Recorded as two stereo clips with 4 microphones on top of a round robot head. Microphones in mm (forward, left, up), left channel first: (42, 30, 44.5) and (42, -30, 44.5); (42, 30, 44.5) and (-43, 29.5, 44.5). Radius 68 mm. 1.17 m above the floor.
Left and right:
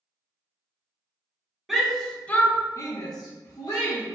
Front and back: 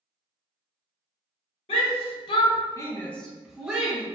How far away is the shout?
About 1.1 m.